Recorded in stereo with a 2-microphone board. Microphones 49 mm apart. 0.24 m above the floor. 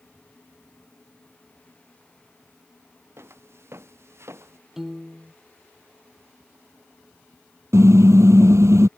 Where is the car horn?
80° right.